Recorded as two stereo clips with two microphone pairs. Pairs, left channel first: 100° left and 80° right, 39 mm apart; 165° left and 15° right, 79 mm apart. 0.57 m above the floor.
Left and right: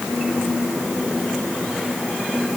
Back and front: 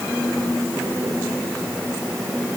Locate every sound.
Only background noise.